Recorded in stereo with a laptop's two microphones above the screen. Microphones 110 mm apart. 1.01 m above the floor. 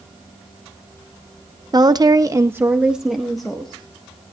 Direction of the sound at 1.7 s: 40° right (ahead or behind).